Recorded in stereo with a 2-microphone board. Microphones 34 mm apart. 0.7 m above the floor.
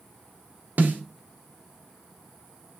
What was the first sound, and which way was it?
A snare drum, 70° right (ahead or behind).